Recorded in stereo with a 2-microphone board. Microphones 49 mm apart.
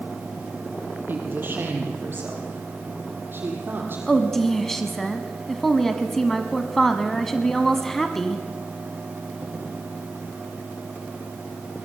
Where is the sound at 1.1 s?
45° right (ahead or behind), 5 m.